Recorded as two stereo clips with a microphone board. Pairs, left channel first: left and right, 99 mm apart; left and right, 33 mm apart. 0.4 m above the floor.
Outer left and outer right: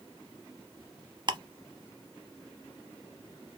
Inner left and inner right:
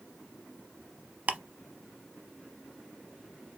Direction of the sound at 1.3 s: 50° right (ahead or behind).